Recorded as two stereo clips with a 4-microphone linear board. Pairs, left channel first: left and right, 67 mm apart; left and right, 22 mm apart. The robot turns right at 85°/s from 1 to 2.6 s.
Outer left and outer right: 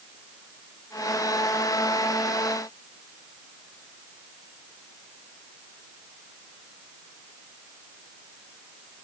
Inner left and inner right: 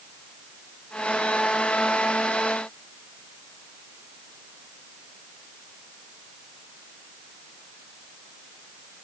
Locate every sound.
Only background noise.